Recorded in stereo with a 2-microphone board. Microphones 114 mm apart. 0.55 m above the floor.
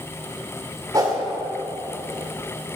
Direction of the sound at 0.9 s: 35° right (ahead or behind).